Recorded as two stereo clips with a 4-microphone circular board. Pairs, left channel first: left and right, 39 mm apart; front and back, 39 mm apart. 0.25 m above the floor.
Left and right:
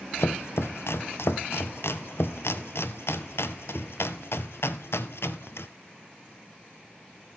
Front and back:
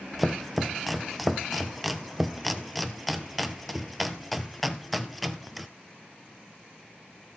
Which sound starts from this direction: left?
Chopping, at 0.2 s.